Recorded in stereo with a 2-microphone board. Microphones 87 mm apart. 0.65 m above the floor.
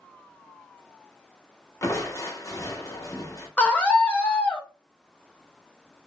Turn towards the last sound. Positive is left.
turn(degrees=15)  # may be behind; listen again after turning